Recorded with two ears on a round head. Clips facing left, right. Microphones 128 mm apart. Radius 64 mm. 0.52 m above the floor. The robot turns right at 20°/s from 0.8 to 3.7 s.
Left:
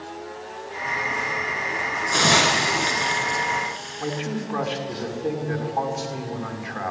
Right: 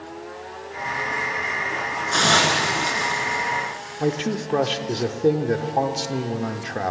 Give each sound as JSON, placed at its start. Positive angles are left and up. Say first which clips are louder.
{"t": 2.1, "sound": "a hiss", "louder": "even", "side_deg": 10, "distance_m": 3.0}
{"t": 4.0, "sound": "a man speaking", "louder": "right 5 dB", "side_deg": -40, "distance_m": 1.6}